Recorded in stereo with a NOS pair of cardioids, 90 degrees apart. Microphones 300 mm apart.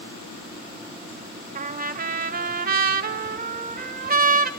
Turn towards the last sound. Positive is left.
turn(degrees=-30)